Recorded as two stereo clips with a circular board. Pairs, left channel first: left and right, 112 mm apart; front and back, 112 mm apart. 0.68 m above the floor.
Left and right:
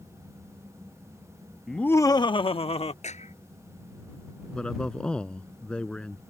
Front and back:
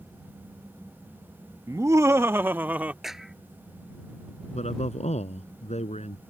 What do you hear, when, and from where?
1.7 s laughter: straight behind; by 2.9 s 105° left
3.0 s a clap: 90° left
4.5 s a man speaking: 10° left